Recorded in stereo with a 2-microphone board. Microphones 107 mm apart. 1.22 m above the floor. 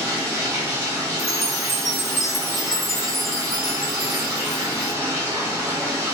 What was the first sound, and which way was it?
Running water, 25° right (ahead or behind).